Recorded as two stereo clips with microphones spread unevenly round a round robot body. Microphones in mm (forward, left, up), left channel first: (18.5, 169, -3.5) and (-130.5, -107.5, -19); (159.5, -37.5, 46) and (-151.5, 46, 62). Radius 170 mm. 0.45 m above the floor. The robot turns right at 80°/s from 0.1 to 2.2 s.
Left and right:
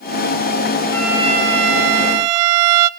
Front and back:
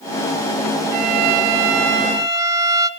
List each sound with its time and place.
0.9 s a violin: 140° left, 0.7 m; by 2.9 s 115° right, 0.7 m